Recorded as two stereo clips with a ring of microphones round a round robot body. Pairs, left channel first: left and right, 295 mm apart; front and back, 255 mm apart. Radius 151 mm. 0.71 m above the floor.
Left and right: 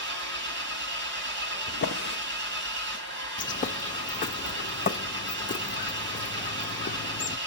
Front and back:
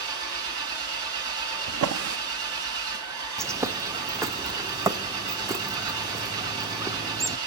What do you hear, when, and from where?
0.0 s an engine running: 145° right, 2.5 m
1.7 s a drawer: 150° left, 0.9 m
3.4 s a bird: 115° left, 0.8 m